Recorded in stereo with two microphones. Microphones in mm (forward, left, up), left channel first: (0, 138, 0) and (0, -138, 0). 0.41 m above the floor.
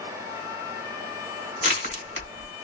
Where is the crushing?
40° left (ahead or behind), 1.5 m.